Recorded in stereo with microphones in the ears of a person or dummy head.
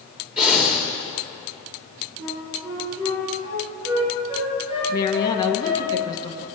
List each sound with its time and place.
0.4 s breathing: 5° right (ahead or behind), 2 m
2.2 s a flute: 80° right, 6.5 m
4.9 s a woman speaking: 20° left (ahead or behind), 1.5 m